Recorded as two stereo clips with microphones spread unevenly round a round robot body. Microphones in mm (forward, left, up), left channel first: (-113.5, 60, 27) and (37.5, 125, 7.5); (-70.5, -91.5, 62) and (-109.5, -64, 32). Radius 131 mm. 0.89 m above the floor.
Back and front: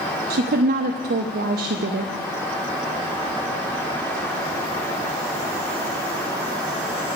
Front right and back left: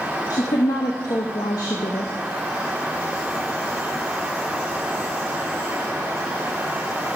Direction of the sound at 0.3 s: 10° left.